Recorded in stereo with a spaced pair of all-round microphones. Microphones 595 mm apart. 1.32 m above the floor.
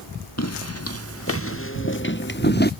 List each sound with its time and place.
0.4 s footsteps: 25° left (ahead or behind); by 2.7 s 15° left (ahead or behind)